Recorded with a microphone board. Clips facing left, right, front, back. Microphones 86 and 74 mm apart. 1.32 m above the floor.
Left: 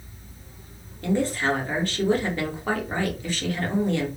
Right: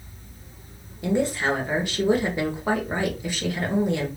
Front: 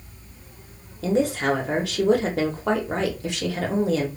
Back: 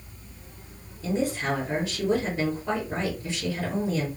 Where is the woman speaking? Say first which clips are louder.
Right 1 dB, front 5 dB; 15° right, 1.0 m.